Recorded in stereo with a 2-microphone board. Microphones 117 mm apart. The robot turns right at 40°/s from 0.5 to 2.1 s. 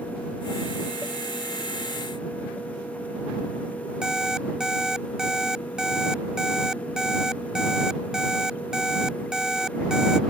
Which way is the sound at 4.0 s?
5° right (ahead or behind).